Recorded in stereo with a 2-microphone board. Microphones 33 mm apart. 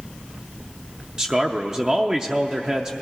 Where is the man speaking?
25° right (ahead or behind), 0.5 m.